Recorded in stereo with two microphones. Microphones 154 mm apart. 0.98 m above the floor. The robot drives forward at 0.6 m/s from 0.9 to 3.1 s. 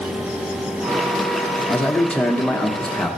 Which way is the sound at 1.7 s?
10° left (ahead or behind).